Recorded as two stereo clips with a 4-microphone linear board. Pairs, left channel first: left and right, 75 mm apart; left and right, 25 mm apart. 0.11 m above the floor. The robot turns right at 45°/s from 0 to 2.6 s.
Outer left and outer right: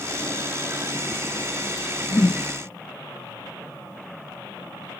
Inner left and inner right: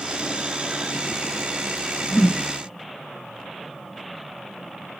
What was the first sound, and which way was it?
A whoosh, 40° left (ahead or behind).